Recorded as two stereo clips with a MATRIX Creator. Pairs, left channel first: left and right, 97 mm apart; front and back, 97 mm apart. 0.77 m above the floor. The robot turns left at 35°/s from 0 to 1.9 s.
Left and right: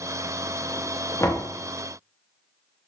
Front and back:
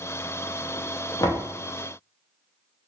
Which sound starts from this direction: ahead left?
Knocking, at 1.2 s.